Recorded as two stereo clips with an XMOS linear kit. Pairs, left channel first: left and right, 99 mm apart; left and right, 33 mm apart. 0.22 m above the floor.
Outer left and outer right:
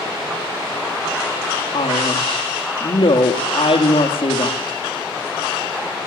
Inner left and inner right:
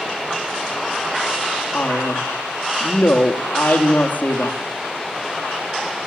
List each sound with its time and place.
1.7 s a man speaking: 70° left (ahead or behind), 4.5 m